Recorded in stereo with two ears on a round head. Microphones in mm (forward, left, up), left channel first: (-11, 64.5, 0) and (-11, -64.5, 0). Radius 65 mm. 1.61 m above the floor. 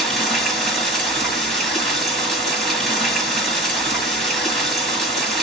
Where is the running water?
5° left (ahead or behind), 1.6 m.